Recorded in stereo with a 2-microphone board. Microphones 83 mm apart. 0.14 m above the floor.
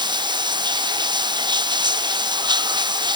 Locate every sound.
0.0 s running water: 60° right (ahead or behind)